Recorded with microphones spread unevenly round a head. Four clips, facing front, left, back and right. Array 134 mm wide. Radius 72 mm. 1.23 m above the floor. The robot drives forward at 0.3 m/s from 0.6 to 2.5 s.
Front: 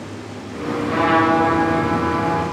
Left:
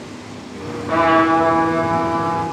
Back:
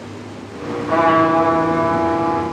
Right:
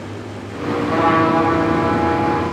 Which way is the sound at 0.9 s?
160° left.